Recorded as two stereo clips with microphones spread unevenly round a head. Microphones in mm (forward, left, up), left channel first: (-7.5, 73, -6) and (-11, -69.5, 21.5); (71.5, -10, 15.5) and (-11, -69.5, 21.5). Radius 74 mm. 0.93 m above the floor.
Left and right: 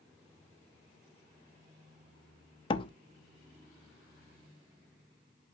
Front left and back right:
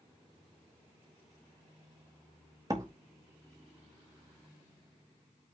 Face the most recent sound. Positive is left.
turn(degrees=145)